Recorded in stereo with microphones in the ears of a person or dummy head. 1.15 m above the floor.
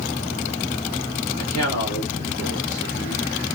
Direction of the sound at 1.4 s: 80° left.